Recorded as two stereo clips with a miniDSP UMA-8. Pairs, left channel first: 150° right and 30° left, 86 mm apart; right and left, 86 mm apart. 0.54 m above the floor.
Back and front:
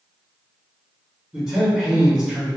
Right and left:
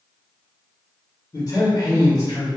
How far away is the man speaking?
About 1.8 m.